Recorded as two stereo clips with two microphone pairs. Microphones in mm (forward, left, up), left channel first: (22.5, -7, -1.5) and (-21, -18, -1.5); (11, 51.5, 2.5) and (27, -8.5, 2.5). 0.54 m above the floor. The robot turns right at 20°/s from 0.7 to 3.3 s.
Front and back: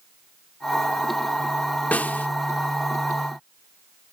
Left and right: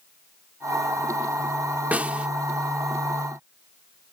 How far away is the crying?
No crying in this recording.